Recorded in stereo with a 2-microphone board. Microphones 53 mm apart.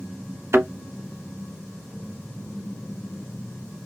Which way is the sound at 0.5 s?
55° right (ahead or behind).